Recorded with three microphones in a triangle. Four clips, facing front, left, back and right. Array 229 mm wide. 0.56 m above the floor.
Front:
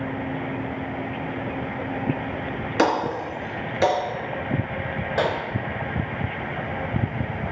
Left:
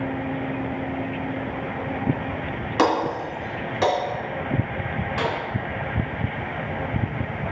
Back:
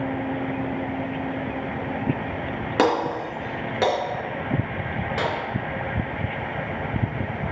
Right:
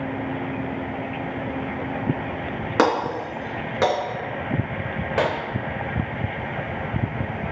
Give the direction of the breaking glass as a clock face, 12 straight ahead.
4 o'clock.